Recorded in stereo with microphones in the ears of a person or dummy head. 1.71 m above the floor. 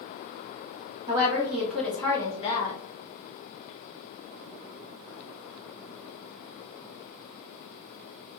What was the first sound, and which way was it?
A woman speaking, 25° right (ahead or behind).